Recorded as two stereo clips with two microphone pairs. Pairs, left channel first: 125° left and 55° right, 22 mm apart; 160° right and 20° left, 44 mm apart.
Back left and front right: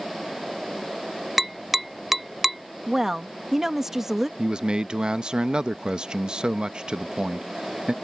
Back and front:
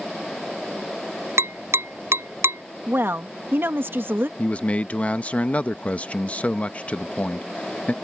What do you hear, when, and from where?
1.4 s tapping: 15° left
2.9 s a woman speaking: 5° left
4.4 s a man speaking: 105° right